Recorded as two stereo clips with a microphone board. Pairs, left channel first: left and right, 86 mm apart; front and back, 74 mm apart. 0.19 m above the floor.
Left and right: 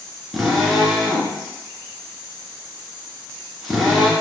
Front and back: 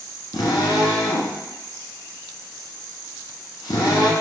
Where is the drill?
Straight ahead, 0.9 m.